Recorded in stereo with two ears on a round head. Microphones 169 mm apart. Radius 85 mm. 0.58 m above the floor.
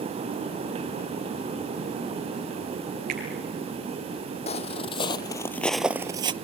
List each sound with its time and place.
3.1 s a finger snap: 45° right (ahead or behind), 8 m
4.5 s footsteps: 35° left (ahead or behind), 1.1 m; by 6.3 s 25° right (ahead or behind), 0.6 m